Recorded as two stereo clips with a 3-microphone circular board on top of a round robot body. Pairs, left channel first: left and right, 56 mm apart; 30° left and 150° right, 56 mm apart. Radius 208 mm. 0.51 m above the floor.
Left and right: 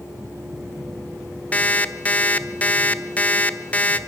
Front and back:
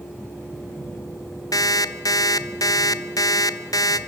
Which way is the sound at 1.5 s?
20° left.